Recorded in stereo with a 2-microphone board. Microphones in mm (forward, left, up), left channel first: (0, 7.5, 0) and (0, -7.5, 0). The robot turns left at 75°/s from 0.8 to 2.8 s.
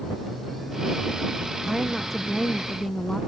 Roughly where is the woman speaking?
Behind right.